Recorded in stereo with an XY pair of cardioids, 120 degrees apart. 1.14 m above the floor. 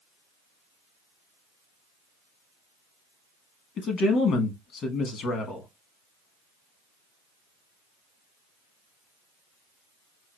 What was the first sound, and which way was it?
A man speaking, 60° left.